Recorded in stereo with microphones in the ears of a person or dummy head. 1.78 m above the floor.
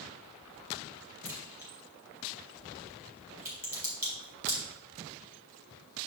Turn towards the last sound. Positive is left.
turn(degrees=-15)  # may be behind; listen again after turning